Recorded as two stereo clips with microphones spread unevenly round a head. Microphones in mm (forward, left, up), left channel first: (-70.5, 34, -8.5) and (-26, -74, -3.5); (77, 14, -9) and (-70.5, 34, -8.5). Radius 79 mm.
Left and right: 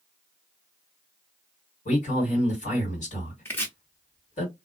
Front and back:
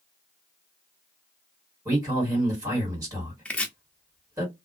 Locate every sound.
1.9 s a man speaking: 110° left, 2.0 m
3.5 s chopping: 60° left, 0.6 m